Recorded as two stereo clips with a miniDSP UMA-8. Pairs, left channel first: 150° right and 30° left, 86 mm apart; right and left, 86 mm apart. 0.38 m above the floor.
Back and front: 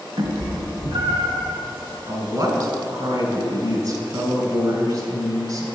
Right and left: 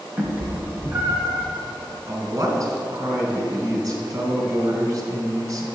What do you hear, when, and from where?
0.2 s a cat meowing: 15° left, 1.1 m; by 1.5 s 20° left, 3 m
2.1 s a woman speaking: 55° left, 1.9 m